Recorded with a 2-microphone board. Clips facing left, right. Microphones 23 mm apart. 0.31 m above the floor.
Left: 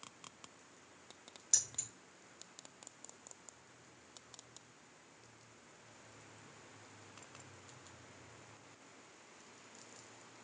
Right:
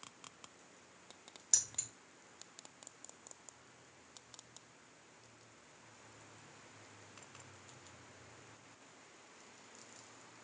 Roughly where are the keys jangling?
Centre.